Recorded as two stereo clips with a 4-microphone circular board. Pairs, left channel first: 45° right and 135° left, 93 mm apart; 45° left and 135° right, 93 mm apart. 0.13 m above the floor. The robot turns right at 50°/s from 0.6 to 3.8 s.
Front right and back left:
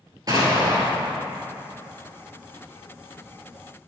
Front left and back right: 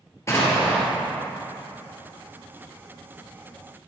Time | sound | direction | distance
0.3 | an explosion | 100° left | 2 m